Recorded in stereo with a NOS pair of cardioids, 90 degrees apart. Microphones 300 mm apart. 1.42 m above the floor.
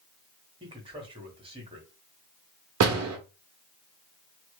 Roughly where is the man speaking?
Ahead.